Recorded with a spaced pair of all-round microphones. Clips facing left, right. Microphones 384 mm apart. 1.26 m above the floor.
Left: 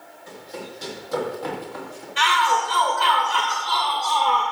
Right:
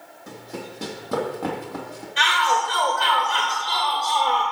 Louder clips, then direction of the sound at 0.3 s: Right 1 dB; 60° right (ahead or behind).